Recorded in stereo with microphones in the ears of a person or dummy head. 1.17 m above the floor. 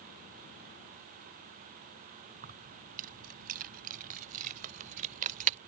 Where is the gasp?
No gasp in this recording.